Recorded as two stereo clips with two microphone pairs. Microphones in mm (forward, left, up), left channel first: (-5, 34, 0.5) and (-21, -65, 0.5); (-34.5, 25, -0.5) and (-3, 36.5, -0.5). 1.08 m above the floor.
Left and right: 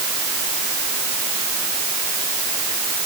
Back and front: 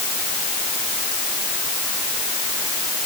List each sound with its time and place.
Only background noise.